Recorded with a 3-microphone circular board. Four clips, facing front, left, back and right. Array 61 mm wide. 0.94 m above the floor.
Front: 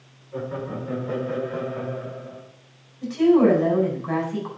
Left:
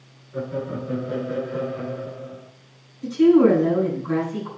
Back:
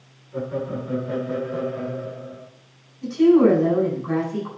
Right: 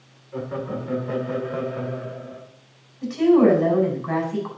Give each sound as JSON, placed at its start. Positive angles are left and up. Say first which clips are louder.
{"t": 0.3, "sound": "laughter", "louder": "left 1 dB, back 3 dB", "azimuth_deg": -45, "distance_m": 5.5}
{"t": 3.0, "sound": "a woman speaking", "louder": "left 1 dB, back 2 dB", "azimuth_deg": -60, "distance_m": 5.0}